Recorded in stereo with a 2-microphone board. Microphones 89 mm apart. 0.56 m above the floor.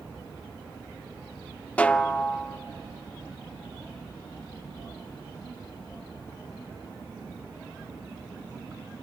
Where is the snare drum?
15° left (ahead or behind), 0.5 m.